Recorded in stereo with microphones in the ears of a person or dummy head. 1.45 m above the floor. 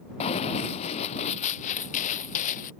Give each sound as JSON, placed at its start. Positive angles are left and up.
{"t": 0.2, "sound": "running footsteps", "side_deg": 35}